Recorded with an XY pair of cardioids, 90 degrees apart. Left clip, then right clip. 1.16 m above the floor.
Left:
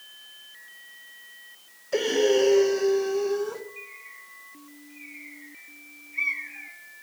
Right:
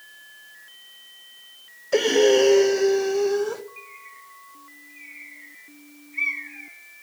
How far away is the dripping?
I don't hear dripping.